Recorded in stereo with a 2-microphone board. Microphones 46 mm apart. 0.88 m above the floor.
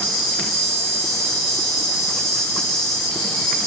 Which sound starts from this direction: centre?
An insect, at 0.0 s.